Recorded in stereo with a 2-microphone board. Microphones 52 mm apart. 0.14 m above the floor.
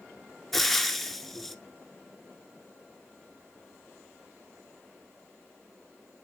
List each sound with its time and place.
0.5 s frying: 5° left (ahead or behind), 0.9 m